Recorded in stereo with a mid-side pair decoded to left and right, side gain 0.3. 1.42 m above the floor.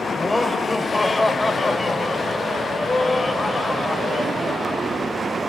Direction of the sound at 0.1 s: 25° left.